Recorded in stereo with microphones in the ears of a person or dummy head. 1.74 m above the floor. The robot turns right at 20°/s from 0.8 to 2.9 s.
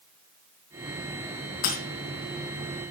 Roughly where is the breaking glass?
Left.